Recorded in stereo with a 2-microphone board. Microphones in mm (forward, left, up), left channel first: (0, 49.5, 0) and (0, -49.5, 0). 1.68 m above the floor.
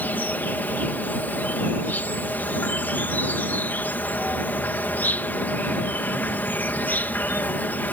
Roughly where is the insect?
Centre.